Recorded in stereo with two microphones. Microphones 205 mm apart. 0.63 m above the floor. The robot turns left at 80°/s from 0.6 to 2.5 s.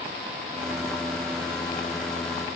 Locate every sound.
Only background noise.